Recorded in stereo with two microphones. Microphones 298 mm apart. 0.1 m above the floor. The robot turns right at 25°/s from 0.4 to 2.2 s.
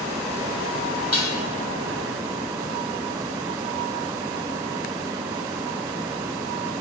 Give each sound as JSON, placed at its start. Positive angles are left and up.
{"t": 1.1, "sound": "dishes clattering", "side_deg": 55, "distance_m": 2.0}